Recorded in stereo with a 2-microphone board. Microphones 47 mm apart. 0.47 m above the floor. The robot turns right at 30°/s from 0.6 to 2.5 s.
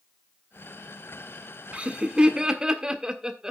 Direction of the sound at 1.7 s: 25° right (ahead or behind).